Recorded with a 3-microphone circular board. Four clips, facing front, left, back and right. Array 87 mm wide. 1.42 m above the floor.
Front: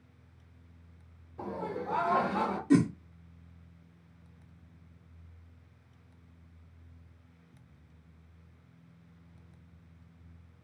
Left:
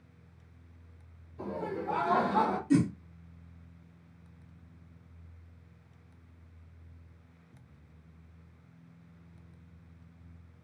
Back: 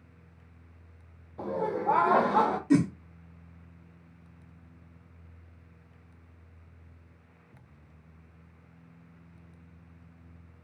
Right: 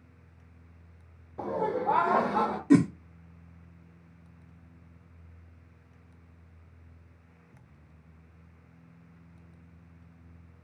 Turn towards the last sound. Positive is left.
turn(degrees=-85)